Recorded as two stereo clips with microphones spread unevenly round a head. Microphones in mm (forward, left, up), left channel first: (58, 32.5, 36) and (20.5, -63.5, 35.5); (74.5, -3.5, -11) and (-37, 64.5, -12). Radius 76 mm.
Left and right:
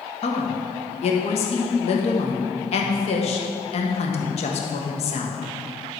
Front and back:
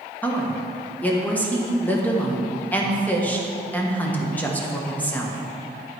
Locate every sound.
0.2 s a woman speaking: 45° left, 1.3 m